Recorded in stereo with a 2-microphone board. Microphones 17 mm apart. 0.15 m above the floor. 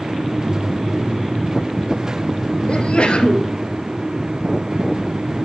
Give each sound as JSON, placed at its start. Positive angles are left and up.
{"t": 2.7, "sound": "a sneeze", "side_deg": 65, "distance_m": 2.5}